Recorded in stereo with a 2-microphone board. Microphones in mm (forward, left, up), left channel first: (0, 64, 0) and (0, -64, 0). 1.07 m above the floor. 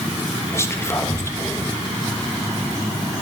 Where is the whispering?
20° left (ahead or behind), 1.1 m.